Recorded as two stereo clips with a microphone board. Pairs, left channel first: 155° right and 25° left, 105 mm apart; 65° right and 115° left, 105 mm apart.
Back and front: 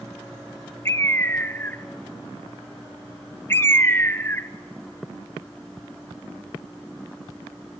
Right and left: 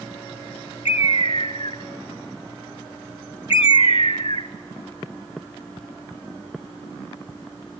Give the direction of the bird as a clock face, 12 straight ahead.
3 o'clock.